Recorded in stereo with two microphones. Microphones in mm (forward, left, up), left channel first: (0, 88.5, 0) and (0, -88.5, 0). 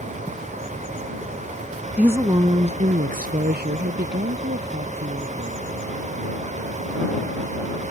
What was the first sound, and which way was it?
A woman speaking, 5° right (ahead or behind).